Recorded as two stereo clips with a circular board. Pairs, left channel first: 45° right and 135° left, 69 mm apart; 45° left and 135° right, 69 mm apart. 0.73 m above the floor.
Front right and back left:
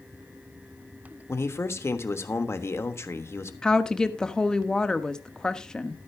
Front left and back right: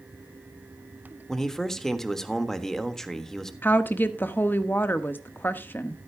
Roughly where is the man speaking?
Ahead right.